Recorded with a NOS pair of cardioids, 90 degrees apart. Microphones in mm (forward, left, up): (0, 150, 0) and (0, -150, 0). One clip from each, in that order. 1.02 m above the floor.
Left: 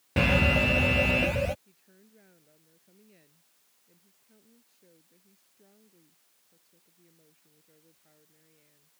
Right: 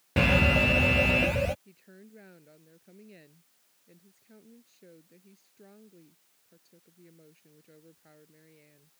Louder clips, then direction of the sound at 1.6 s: Right 7 dB; 60° right.